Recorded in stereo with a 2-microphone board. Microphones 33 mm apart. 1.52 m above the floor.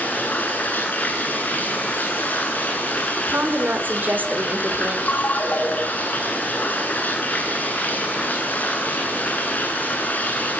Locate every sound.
0.0 s running water: 65° left (ahead or behind), 9 m
3.3 s a woman speaking: 70° right (ahead or behind), 5 m
5.1 s a ringtone: 65° left (ahead or behind), 6 m